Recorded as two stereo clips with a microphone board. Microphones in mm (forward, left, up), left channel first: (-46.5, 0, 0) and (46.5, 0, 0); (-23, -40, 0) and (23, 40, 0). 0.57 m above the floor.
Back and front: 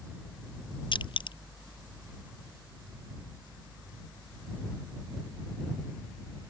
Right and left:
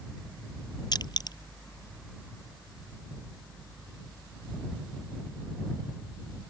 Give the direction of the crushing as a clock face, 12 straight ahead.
5 o'clock.